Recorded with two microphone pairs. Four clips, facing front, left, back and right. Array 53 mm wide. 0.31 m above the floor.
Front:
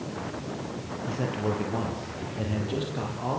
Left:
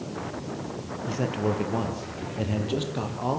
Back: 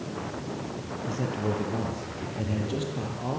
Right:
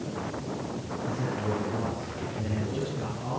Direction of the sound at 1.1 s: 55° left.